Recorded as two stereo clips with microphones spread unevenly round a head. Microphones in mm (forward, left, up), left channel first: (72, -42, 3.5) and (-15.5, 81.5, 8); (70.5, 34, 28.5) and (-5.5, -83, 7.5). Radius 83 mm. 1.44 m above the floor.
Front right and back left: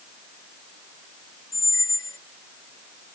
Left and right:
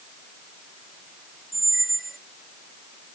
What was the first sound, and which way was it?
A squeak, 15° right.